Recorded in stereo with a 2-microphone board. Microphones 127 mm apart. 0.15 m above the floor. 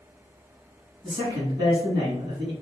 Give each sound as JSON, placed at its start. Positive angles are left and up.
{"t": 1.0, "sound": "a man speaking", "side_deg": -35, "distance_m": 1.3}